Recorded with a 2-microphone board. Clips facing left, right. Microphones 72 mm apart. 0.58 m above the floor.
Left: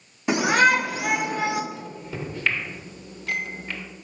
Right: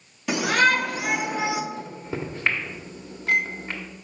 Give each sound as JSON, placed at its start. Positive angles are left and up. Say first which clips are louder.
{"t": 0.3, "sound": "a shout", "louder": "left 2 dB", "side_deg": 20, "distance_m": 0.7}
{"t": 1.7, "sound": "a microwave", "louder": "right 2 dB", "side_deg": -30, "distance_m": 1.3}